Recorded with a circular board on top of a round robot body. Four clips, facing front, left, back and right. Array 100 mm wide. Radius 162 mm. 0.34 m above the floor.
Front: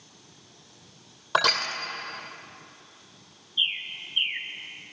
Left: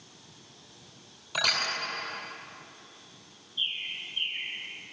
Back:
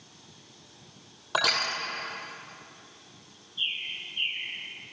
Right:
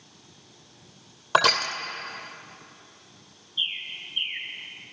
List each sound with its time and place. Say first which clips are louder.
1.3 s crushing: right 10 dB, front 3 dB; 85° right, 2.5 m
3.6 s a bird: right 2 dB, front 3 dB; 25° right, 0.9 m